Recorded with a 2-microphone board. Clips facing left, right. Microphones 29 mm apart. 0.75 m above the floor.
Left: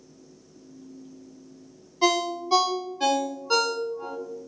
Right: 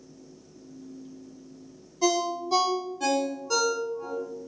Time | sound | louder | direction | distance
2.0 | a ringtone | left 2 dB | 45° left (ahead or behind) | 0.5 m